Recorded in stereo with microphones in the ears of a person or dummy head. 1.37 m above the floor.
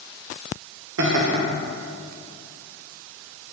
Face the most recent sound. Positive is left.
turn(degrees=-70)  # may be behind; listen again after turning